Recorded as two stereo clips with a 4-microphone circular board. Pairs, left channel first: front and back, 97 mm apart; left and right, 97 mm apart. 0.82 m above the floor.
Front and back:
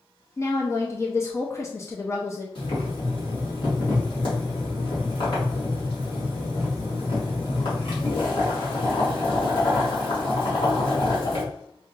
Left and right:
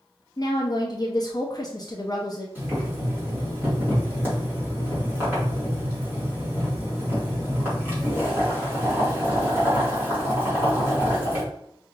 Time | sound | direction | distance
0.4 | a woman speaking | 55° left | 0.7 m
2.5 | boiling | 25° right | 2 m